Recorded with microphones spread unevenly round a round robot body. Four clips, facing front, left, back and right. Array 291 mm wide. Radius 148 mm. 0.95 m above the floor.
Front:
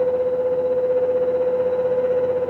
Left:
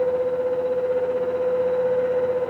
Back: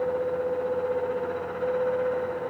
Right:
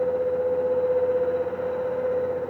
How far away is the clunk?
I don't hear a clunk.